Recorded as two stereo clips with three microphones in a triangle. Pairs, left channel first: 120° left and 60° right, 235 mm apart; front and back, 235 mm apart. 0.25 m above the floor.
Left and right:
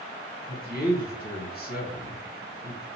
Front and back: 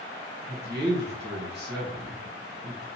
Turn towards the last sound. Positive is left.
turn(degrees=155)